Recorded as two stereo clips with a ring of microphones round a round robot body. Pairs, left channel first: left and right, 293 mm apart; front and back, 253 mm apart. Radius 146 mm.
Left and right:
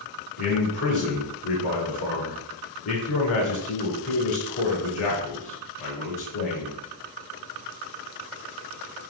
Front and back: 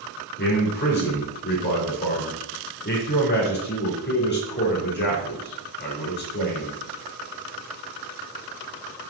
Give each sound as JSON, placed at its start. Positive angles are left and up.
{"t": 0.4, "sound": "a man speaking", "azimuth_deg": 50, "distance_m": 3.5}